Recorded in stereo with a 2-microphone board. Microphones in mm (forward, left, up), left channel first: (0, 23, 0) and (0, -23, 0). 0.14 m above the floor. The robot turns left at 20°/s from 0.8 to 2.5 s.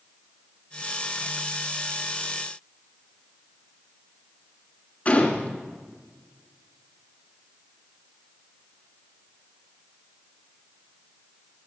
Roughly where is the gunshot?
Left.